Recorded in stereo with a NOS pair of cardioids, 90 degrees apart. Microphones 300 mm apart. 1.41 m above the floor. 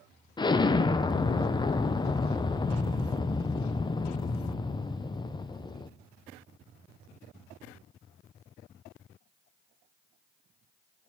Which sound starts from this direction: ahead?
An explosion, at 0.4 s.